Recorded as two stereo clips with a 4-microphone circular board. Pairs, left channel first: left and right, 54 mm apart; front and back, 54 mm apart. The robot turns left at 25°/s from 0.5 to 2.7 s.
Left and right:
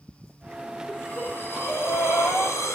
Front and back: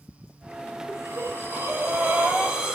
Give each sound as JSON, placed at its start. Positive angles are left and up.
{"t": 0.9, "sound": "breathing", "azimuth_deg": 155, "distance_m": 3.5}